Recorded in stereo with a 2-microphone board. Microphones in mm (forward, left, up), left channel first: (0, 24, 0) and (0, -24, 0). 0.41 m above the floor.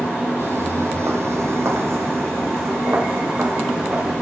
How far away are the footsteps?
About 0.8 m.